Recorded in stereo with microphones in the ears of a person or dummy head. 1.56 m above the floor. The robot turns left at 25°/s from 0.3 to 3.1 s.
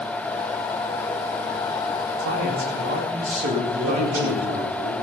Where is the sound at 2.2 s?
60° right (ahead or behind), 2 m; by 4.7 s 40° right (ahead or behind), 2 m.